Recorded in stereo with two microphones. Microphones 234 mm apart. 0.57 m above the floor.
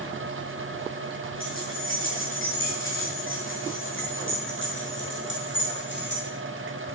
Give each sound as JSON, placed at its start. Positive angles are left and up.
{"t": 1.4, "sound": "keys jangling", "side_deg": 65, "distance_m": 10.0}